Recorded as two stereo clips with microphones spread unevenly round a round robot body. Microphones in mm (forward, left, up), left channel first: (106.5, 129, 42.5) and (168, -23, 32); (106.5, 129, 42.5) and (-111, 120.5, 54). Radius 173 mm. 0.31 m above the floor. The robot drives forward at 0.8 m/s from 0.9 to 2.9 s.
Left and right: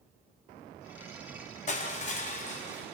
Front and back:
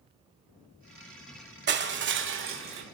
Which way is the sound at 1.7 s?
155° left.